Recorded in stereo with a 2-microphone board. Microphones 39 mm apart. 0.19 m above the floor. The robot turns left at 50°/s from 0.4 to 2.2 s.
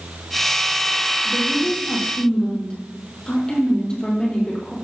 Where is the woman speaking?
65° left, 5.5 m; by 4.8 s 20° left, 5.5 m.